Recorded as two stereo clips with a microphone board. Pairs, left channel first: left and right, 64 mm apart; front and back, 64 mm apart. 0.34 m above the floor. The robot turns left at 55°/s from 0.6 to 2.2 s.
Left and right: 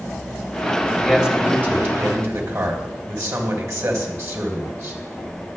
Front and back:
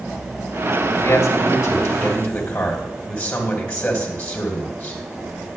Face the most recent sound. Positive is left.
turn(degrees=-65)